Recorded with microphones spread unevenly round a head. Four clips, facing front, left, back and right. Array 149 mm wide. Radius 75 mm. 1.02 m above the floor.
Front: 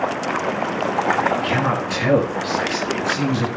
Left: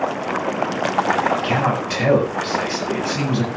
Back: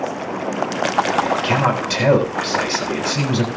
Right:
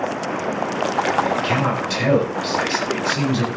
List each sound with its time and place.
1.1 s a man speaking: 155° left, 8 m